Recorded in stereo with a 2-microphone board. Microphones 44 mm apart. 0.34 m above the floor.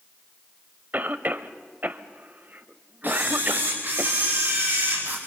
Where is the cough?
40° right (ahead or behind), 1.3 m.